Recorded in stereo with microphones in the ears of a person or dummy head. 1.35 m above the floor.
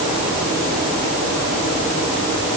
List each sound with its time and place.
Only background noise.